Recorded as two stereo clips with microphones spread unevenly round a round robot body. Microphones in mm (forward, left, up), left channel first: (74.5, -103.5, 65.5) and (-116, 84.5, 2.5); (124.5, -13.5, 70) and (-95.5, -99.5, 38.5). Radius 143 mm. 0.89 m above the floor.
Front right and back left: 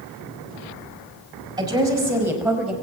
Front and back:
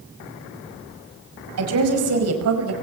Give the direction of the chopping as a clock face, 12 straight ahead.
I don't hear chopping.